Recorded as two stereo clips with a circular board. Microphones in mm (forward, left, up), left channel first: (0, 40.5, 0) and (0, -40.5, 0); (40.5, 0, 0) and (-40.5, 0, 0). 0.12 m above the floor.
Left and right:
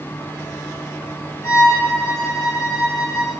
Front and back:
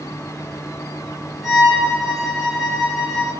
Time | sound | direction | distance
1.4 | a violin | 90° left | 1.3 m